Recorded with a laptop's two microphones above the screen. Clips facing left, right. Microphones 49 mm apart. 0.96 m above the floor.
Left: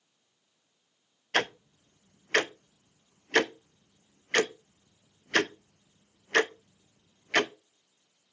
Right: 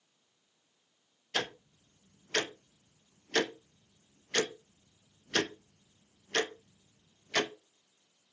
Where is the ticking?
50° left (ahead or behind), 0.6 m.